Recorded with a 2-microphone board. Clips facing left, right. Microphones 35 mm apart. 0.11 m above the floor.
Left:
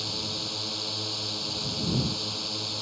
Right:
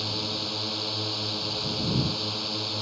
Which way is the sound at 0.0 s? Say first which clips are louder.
Right 2 dB; 10° right (ahead or behind).